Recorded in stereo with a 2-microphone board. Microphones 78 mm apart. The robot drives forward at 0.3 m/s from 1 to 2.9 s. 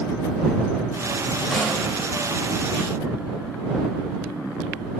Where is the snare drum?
5° left (ahead or behind), 1.8 m.